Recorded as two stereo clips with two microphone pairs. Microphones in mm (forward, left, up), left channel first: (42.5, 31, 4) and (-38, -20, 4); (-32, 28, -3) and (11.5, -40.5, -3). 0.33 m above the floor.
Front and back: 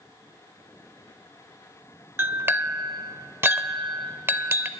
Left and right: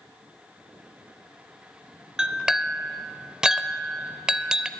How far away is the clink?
About 0.5 m.